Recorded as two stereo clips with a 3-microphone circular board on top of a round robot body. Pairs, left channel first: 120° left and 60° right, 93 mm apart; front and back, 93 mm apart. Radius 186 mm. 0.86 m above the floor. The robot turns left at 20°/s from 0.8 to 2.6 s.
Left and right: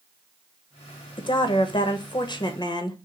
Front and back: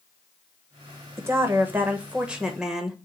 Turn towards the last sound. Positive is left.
turn(degrees=95)